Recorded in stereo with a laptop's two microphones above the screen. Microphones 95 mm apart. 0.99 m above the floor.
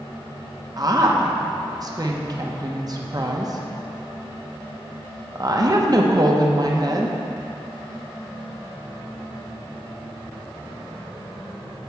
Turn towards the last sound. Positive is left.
turn(degrees=-40)  # may be behind; listen again after turning